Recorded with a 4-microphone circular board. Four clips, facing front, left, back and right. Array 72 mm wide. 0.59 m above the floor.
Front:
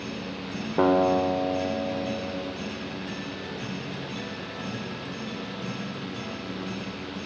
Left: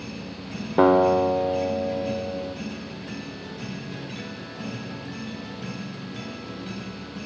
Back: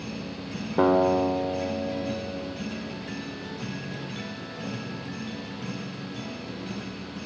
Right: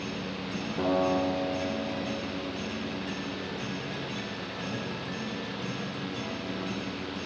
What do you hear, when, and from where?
0.8 s a guitar: 90° left, 2 m